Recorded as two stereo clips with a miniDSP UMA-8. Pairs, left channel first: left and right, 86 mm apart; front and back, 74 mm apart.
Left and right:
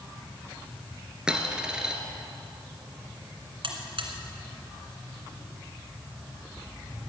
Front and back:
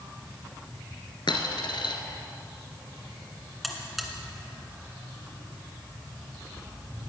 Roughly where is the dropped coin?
Ahead.